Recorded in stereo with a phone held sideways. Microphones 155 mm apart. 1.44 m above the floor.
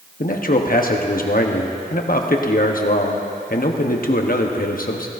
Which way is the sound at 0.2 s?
65° left (ahead or behind).